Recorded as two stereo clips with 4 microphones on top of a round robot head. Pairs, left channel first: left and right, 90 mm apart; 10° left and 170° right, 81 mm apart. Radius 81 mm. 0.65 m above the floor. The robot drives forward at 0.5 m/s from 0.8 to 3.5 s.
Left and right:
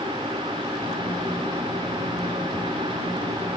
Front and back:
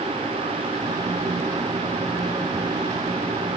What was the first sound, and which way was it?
Only background noise.